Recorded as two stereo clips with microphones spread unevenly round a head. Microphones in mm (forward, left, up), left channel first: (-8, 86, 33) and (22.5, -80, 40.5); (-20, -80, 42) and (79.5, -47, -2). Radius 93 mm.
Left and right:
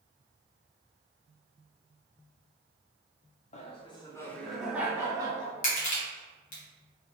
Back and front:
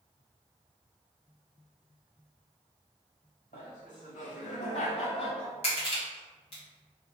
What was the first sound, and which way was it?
Laughter, 150° left.